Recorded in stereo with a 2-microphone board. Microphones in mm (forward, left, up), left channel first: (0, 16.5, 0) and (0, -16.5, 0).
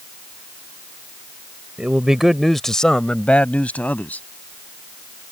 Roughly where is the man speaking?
Right.